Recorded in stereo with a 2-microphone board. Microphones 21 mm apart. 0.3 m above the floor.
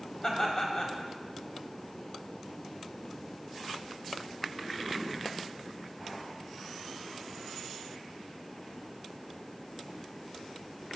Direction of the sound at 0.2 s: 30° left (ahead or behind).